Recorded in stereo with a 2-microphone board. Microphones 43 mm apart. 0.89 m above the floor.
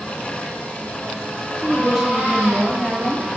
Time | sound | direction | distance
1.6 | a woman speaking | 15° right (ahead or behind) | 1.7 m